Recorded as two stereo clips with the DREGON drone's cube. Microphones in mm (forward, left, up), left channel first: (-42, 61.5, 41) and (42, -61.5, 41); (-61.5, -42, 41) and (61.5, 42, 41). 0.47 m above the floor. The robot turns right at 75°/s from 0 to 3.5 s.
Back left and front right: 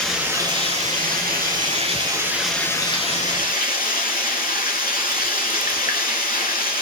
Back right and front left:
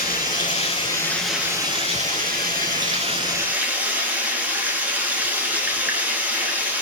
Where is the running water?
150° right, 4 m; by 6.8 s 110° left, 4 m.